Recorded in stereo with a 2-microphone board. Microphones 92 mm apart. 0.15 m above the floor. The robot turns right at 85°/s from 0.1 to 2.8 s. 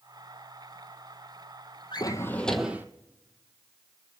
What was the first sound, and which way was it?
A drawer, 125° left.